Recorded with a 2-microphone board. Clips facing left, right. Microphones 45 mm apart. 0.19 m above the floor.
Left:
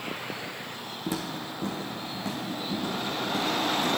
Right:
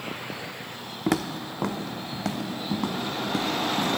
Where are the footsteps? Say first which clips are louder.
Right 7 dB; 65° right (ahead or behind), 0.6 m; by 4.0 s 60° right (ahead or behind), 3 m.